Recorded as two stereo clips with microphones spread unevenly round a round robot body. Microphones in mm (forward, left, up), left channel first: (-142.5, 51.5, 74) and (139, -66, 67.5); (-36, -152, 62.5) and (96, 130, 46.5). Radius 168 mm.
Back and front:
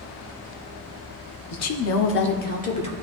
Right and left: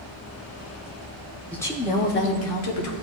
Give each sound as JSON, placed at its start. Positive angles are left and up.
{"t": 1.5, "sound": "a woman speaking", "azimuth_deg": 155, "distance_m": 1.0}